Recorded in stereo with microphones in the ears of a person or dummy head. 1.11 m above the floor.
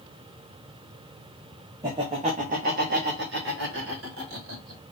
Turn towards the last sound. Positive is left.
turn(degrees=-60)  # may be behind; listen again after turning